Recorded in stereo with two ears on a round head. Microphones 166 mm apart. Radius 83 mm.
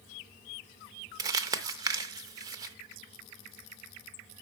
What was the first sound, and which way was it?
Crumpling, 20° right (ahead or behind).